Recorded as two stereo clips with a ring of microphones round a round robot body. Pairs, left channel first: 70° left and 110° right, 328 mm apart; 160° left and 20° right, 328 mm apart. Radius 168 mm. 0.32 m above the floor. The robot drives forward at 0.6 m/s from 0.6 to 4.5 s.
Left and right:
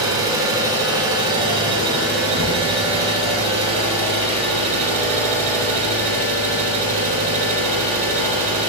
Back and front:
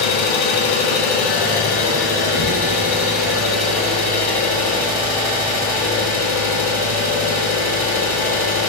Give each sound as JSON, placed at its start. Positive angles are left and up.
{"t": 0.0, "sound": "an engine running", "azimuth_deg": 170, "distance_m": 1.9}